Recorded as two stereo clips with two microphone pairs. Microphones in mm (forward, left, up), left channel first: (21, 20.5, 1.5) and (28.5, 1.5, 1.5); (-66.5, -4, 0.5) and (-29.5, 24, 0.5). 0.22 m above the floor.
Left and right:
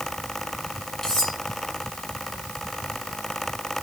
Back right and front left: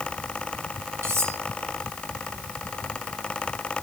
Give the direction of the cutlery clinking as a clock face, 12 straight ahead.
10 o'clock.